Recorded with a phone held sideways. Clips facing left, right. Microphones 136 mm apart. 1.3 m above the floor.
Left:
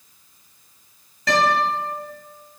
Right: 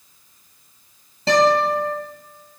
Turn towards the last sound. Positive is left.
turn(degrees=-30)  # may be behind; listen again after turning